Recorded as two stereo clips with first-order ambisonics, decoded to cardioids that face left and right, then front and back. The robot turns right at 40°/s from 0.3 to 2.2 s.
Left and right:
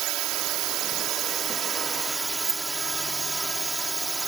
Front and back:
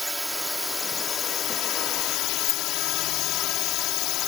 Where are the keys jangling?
35° right.